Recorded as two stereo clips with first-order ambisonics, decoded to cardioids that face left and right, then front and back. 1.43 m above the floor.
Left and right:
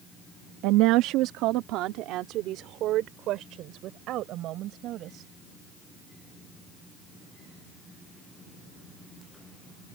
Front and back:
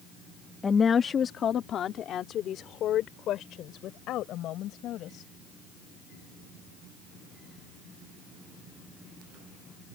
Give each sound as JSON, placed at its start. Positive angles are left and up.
{"t": 0.6, "sound": "a woman speaking", "azimuth_deg": -75}